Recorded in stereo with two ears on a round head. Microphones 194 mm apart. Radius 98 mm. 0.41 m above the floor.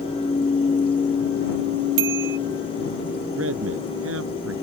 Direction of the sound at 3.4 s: 65° right (ahead or behind).